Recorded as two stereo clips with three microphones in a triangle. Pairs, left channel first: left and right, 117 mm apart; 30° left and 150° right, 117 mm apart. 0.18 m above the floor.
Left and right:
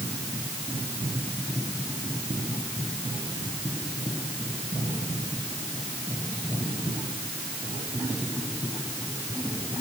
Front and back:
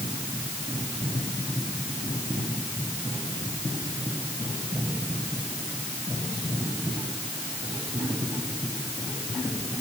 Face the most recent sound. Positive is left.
No sound to turn to.